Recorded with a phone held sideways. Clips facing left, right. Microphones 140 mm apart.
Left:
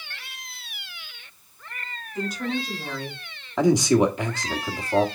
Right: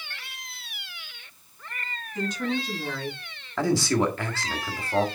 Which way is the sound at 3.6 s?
20° left (ahead or behind).